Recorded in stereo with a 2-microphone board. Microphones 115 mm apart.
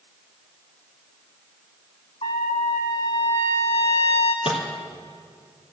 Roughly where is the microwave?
Left.